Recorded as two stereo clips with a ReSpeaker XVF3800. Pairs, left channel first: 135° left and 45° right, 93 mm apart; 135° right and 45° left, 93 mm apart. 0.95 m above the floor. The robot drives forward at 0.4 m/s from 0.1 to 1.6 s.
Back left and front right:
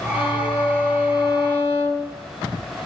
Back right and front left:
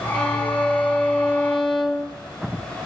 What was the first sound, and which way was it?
A violin, 140° left.